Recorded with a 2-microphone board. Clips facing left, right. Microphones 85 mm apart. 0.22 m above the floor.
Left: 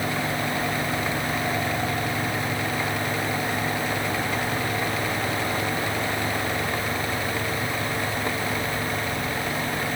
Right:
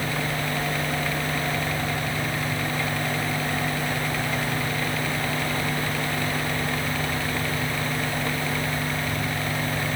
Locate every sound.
Only background noise.